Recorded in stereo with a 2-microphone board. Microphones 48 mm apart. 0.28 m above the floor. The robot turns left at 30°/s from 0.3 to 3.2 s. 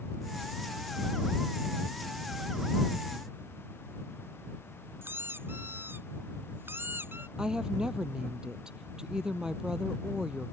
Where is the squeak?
50° right (ahead or behind).